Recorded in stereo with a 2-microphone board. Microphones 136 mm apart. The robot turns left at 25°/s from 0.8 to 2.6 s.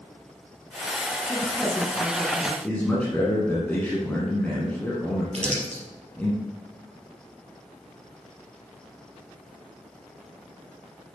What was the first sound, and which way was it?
A woman speaking, straight behind.